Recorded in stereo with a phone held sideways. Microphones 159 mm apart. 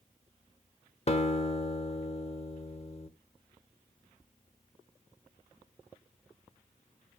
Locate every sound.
1.1 s a guitar: 40° left (ahead or behind), 1.0 m